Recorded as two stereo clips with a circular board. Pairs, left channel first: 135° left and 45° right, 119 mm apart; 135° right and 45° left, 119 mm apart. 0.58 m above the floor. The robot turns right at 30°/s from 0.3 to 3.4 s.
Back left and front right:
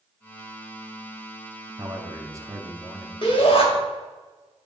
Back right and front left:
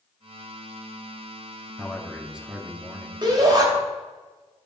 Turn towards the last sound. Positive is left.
turn(degrees=100)